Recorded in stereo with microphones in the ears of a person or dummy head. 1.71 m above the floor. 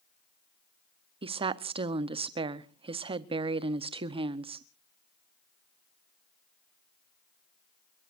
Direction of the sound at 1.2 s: 30° right (ahead or behind).